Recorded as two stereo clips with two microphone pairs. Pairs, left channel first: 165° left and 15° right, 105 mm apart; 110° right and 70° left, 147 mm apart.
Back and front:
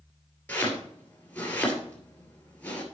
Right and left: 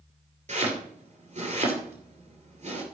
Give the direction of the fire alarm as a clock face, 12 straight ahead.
No fire alarm in this recording.